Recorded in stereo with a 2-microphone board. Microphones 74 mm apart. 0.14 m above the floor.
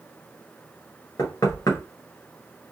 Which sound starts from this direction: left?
Knocking, at 1.2 s.